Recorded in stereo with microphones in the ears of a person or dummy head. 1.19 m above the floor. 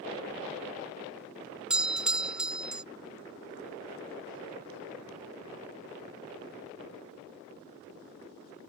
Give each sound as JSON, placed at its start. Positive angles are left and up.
{"t": 1.7, "sound": "a doorbell", "side_deg": -5}